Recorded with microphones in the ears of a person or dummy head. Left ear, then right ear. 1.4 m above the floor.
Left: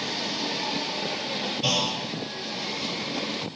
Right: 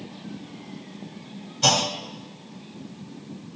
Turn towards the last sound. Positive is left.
turn(degrees=-50)  # may be behind; listen again after turning